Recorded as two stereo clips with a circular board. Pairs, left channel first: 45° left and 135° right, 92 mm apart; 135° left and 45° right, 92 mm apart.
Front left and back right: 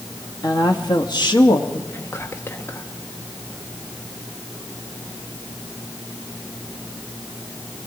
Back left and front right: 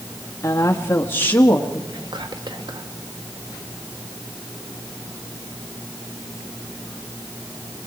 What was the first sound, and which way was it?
A woman speaking, 85° left.